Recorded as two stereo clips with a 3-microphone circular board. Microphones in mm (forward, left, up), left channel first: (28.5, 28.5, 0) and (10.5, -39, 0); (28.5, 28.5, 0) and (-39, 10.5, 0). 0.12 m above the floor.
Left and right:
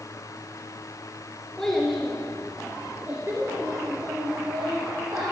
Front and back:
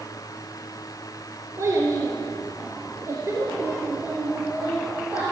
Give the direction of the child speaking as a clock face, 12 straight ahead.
7 o'clock.